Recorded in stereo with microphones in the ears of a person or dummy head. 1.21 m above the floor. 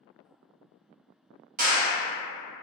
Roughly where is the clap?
Right.